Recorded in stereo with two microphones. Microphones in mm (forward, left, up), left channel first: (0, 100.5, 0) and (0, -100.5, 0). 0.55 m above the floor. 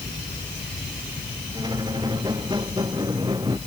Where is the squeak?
20° right (ahead or behind).